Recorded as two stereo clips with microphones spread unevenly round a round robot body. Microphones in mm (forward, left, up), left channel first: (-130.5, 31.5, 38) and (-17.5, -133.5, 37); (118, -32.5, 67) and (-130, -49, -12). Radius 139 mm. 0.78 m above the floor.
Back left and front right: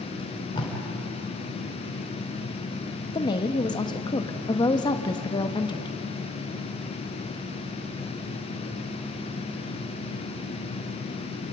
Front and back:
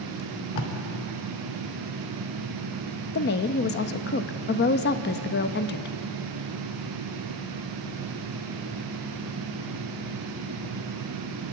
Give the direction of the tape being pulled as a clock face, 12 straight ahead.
10 o'clock.